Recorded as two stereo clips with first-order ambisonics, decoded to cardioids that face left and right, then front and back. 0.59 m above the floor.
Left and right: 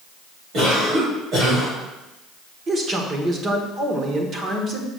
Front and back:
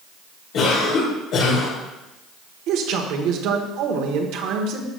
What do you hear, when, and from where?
0.5 s a cough: 40° right, 2.5 m
2.7 s a man speaking: 155° right, 1.1 m